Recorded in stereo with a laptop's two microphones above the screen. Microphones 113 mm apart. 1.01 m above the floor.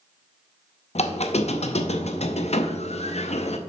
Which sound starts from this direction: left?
A squeak, at 0.9 s.